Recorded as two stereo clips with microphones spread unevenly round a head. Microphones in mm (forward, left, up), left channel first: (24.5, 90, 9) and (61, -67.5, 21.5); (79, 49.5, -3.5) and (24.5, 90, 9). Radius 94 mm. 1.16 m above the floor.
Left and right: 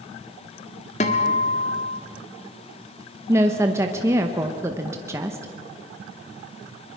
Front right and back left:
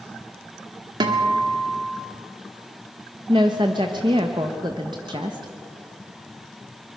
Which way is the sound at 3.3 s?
155° right.